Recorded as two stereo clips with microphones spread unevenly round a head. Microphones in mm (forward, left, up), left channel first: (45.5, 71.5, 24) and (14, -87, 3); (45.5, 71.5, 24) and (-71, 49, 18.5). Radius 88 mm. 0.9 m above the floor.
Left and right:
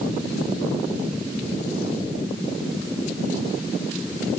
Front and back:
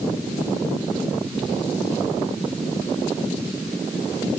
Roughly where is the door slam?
No door slam in this recording.